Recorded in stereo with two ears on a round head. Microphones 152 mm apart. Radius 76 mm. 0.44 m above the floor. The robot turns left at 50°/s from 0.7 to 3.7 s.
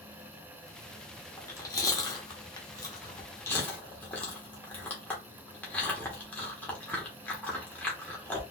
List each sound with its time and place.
1.4 s chewing: 15° left (ahead or behind), 1.0 m; by 8.4 s 10° left (ahead or behind), 1.0 m